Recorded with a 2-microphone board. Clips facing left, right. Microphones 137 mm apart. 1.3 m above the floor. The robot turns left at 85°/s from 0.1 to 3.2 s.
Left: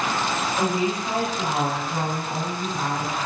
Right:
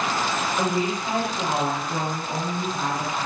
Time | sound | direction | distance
0.6 | a woman speaking | 35° left | 1.6 m